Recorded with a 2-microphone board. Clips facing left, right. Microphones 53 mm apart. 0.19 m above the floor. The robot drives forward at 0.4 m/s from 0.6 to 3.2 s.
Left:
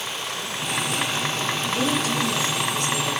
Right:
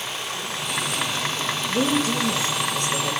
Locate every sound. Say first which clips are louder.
1.7 s a woman speaking: right 3 dB; 35° right (ahead or behind), 8.5 m